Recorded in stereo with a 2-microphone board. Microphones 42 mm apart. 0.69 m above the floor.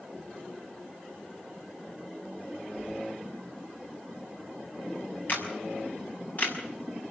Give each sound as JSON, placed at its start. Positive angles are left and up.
{"t": 2.8, "sound": "keys jangling", "side_deg": 45, "distance_m": 9.5}
{"t": 5.3, "sound": "a camera shutter", "side_deg": 45, "distance_m": 6.0}